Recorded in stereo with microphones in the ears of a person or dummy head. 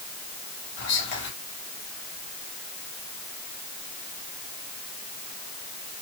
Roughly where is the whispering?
Left.